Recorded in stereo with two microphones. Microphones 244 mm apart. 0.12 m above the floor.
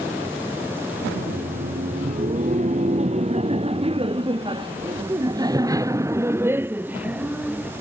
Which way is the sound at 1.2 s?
35° right (ahead or behind).